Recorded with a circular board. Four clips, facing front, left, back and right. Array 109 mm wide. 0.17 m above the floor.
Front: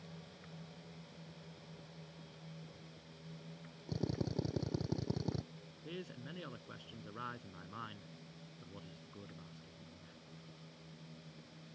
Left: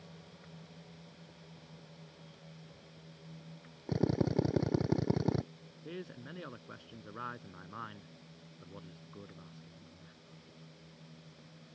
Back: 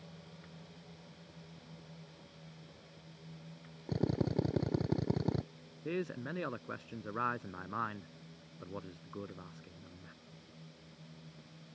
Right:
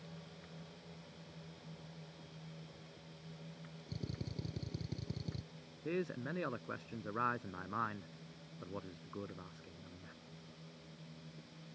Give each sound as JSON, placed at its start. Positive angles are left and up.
{"t": 3.9, "sound": "a drill", "azimuth_deg": 110}
{"t": 5.8, "sound": "a man speaking", "azimuth_deg": -150}